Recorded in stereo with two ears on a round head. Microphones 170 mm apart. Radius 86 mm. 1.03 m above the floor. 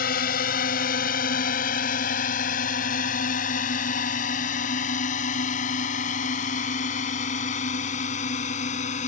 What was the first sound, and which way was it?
A drone, 45° left (ahead or behind).